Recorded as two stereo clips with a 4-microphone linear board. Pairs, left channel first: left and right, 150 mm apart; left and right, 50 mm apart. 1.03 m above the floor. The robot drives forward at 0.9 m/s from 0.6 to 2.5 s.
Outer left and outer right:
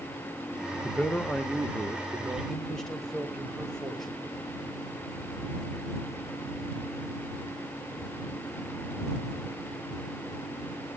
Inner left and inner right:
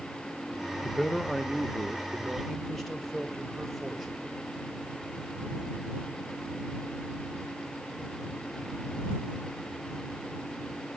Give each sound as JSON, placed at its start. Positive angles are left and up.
{"t": 0.8, "sound": "a man speaking", "side_deg": 5, "distance_m": 0.8}